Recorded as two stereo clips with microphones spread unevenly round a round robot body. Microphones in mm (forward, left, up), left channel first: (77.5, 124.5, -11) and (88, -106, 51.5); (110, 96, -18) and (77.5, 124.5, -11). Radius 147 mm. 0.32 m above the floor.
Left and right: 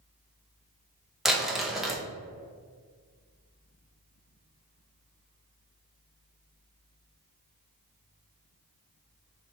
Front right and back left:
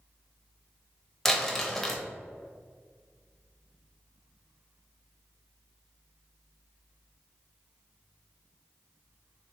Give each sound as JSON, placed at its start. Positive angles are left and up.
{"t": 1.2, "sound": "crumpling", "azimuth_deg": 25, "distance_m": 1.0}